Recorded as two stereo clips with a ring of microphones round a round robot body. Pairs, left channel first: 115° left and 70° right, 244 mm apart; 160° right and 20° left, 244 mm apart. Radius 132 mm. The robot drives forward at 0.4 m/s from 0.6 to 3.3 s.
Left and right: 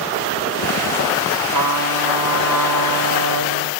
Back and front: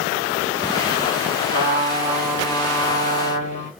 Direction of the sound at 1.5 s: 45° right.